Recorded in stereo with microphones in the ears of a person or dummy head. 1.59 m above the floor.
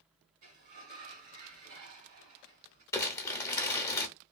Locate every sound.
0.4 s a sliding door: 45° right (ahead or behind), 1.8 m
2.9 s crumpling: 10° left (ahead or behind), 0.6 m